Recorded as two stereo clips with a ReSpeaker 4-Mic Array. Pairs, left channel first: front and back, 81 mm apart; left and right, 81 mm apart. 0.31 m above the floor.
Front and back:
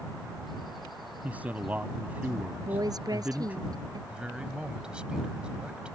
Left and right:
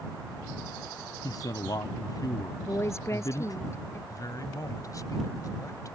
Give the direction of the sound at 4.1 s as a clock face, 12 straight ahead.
8 o'clock.